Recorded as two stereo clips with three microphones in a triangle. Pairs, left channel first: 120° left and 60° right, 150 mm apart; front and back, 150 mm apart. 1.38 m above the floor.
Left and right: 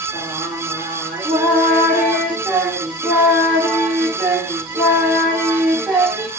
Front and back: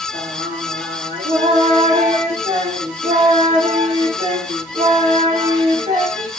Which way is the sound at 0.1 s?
140° right.